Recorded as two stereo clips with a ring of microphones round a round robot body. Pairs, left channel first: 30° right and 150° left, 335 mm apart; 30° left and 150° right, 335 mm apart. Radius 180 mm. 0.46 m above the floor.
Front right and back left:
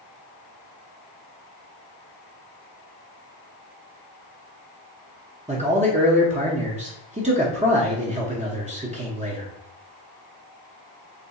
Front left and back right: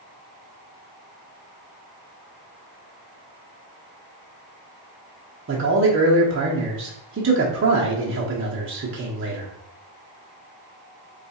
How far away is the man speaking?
About 0.9 m.